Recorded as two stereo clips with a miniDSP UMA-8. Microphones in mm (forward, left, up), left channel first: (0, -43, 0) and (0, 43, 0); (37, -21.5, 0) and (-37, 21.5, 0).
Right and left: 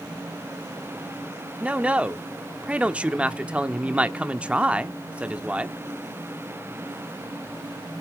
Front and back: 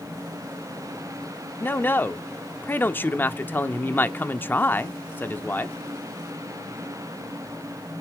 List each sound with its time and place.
1.6 s a man speaking: 20° left, 0.9 m